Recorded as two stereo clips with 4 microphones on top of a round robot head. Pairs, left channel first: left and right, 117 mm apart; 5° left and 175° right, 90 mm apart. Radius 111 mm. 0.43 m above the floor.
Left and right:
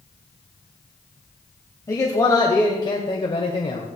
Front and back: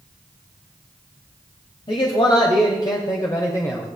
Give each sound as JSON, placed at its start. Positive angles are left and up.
{"t": 1.9, "sound": "a man speaking", "azimuth_deg": 30, "distance_m": 2.5}